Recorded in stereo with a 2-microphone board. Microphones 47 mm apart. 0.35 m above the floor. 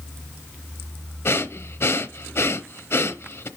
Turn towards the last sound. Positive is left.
turn(degrees=65)  # may be behind; listen again after turning